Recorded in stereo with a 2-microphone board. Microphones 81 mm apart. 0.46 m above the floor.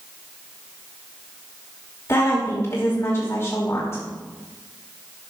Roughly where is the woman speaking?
Left.